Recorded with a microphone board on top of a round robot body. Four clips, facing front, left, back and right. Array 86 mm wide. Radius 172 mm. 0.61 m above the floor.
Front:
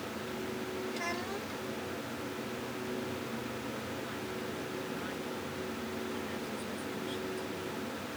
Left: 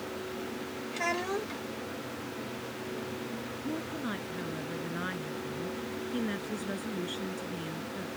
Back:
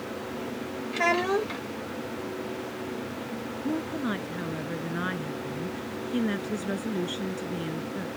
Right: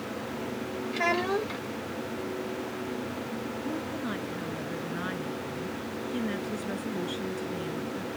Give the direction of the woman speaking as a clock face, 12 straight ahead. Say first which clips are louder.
Even, back 10 dB; 6 o'clock.